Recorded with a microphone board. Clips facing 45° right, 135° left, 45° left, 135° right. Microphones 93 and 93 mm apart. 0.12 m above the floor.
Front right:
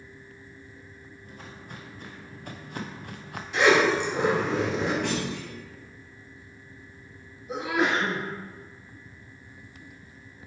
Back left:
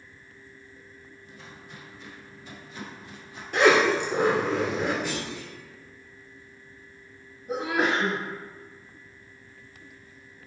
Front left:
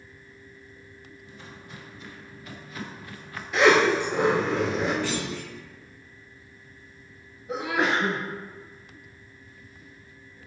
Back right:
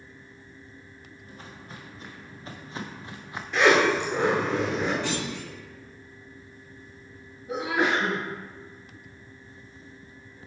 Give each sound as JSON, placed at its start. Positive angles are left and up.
{"t": 1.2, "sound": "footsteps", "azimuth_deg": -85, "distance_m": 2.0}
{"t": 3.5, "sound": "a zipper", "azimuth_deg": 125, "distance_m": 2.5}
{"t": 5.0, "sound": "a clunk", "azimuth_deg": -65, "distance_m": 2.0}
{"t": 7.5, "sound": "a sneeze", "azimuth_deg": 155, "distance_m": 2.0}